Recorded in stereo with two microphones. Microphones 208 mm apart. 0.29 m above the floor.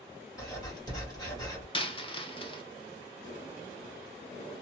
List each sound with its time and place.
0.4 s writing: 20° left (ahead or behind), 1.5 m
1.7 s a dropped coin: 25° left (ahead or behind), 0.5 m